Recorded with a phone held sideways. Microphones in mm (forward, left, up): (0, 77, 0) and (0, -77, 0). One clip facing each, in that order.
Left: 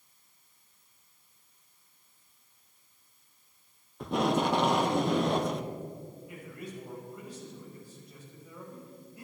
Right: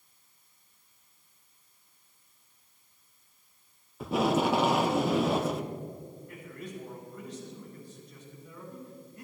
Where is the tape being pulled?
5° right (ahead or behind), 0.7 m.